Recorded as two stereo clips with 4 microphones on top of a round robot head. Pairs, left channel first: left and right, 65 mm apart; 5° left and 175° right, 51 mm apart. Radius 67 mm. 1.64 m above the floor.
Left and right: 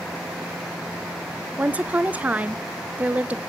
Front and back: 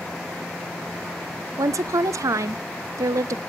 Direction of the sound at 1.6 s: 160° right.